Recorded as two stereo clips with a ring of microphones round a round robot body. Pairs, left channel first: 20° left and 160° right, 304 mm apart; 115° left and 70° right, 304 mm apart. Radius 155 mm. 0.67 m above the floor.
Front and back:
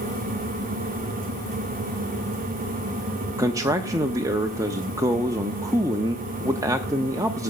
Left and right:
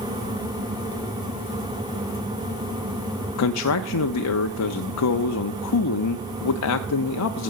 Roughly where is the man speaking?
Behind left.